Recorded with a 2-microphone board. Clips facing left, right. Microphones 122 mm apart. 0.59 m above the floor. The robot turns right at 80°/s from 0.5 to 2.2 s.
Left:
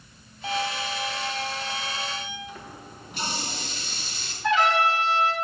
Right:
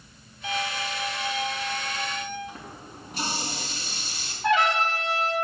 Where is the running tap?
40° right (ahead or behind), 3.5 m.